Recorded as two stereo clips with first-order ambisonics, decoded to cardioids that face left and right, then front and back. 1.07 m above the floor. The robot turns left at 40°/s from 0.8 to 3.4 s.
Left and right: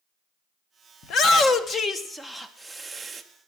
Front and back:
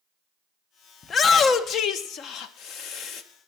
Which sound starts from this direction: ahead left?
A shout, at 1.0 s.